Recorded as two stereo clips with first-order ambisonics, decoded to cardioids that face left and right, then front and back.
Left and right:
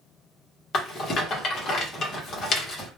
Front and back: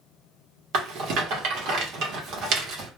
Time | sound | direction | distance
0.7 | a rattle | 150° left | 0.8 m